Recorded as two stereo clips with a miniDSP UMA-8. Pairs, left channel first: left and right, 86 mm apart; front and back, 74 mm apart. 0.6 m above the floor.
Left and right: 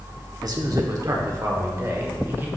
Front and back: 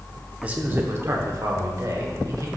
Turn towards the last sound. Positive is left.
turn(degrees=-150)